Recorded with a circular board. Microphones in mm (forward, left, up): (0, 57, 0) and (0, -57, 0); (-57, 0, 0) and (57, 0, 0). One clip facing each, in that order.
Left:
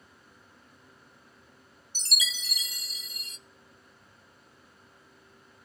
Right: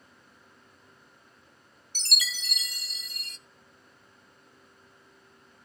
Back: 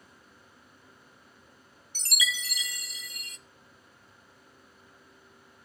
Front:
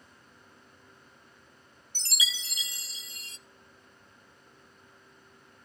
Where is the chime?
65° right, 0.5 m.